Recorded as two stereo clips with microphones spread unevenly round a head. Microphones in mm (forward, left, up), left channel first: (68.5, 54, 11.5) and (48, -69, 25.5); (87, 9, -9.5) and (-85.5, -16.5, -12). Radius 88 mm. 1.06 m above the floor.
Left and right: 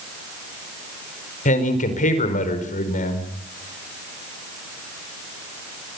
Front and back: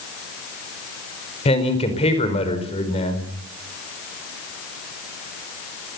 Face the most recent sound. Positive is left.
turn(degrees=65)